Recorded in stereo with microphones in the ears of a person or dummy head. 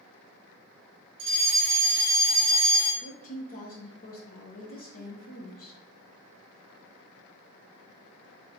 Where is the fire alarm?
25° right (ahead or behind), 1.0 m.